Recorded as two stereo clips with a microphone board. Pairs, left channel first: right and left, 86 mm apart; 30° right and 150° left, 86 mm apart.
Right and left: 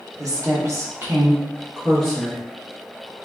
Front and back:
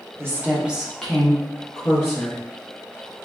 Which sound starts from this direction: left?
A woman speaking, at 0.2 s.